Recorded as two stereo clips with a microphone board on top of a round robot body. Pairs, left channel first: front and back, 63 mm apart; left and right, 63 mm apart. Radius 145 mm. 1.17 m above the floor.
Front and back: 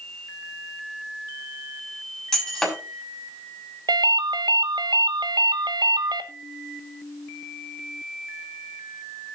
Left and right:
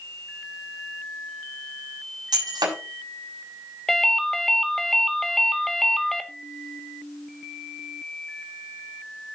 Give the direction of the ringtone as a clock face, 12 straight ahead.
6 o'clock.